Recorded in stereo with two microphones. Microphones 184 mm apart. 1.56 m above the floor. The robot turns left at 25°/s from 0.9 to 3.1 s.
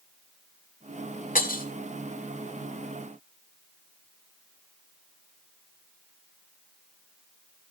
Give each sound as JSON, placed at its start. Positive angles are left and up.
{"t": 1.4, "sound": "breaking glass", "side_deg": 50, "distance_m": 1.7}